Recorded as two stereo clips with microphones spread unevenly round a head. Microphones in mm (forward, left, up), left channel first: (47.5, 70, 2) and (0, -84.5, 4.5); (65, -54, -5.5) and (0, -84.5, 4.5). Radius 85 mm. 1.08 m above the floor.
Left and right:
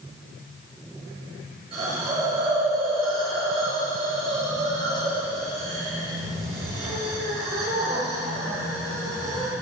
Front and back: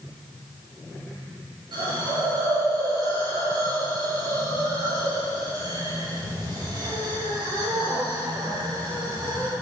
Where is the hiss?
165° right, 4.5 m.